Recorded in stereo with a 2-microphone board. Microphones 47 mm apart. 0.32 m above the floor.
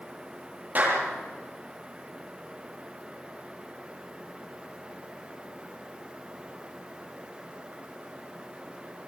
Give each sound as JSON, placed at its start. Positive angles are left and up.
{"t": 0.8, "sound": "a clap", "side_deg": -40, "distance_m": 9.5}